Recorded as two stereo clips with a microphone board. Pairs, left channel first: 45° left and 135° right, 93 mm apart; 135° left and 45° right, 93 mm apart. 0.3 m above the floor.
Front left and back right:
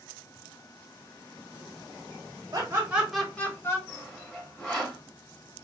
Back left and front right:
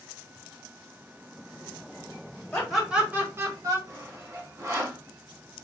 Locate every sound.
2.5 s laughter: 150° right, 1.2 m; by 3.8 s 5° right, 1.5 m
3.9 s sawing: 25° right, 1.7 m